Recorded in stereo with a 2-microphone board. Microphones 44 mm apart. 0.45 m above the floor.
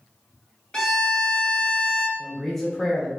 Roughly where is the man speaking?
Centre.